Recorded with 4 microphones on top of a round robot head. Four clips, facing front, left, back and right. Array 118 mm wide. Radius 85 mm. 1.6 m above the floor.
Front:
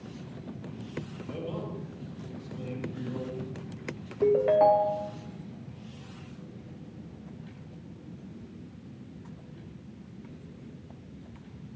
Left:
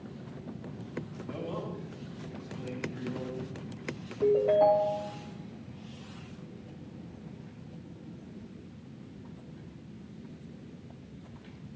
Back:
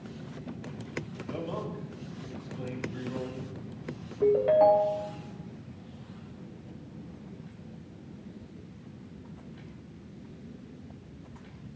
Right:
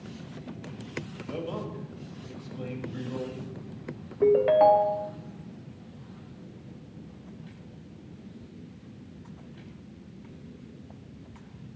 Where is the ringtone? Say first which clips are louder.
Right 4 dB, even; 70° right, 0.6 m.